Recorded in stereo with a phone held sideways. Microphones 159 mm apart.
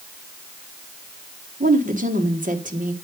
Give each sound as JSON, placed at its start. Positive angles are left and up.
{"t": 1.6, "sound": "a woman speaking", "side_deg": -55, "distance_m": 1.5}